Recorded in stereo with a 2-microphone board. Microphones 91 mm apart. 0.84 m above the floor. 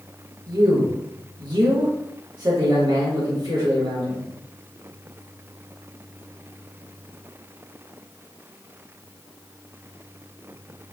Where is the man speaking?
50° right (ahead or behind), 1.3 m.